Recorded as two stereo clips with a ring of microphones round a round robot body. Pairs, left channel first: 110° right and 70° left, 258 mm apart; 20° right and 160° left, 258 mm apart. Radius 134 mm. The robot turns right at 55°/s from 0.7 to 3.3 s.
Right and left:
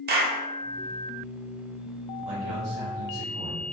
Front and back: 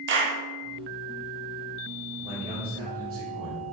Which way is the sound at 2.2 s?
70° left.